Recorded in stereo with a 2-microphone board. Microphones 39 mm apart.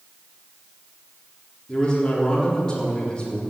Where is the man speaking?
20° left (ahead or behind), 4 m.